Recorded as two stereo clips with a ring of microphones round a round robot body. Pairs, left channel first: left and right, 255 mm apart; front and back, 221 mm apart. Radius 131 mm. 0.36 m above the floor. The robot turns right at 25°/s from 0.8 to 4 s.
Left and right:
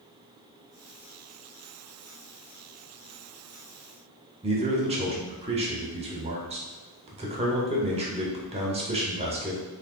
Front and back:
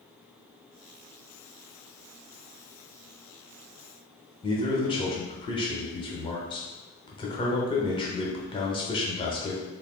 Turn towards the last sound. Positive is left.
turn(degrees=-45)